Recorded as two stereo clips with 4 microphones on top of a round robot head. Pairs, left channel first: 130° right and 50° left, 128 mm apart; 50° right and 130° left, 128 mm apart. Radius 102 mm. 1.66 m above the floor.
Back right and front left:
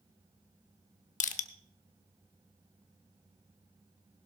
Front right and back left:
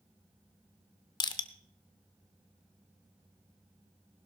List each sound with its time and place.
1.2 s crushing: 105° right, 0.8 m